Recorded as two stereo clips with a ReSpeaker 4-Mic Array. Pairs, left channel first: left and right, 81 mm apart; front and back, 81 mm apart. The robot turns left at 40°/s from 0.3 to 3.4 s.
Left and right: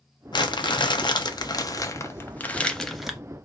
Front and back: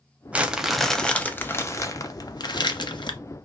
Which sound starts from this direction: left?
Crumpling, at 0.3 s.